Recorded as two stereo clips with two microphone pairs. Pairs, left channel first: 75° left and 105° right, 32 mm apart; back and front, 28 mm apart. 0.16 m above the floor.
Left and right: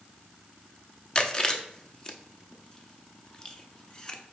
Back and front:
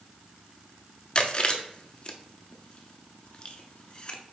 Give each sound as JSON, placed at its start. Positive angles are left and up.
{"t": 1.1, "sound": "chewing", "azimuth_deg": 135, "distance_m": 0.6}